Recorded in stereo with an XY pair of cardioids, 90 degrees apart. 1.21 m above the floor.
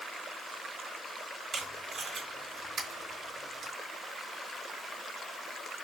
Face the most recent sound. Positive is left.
turn(degrees=-50)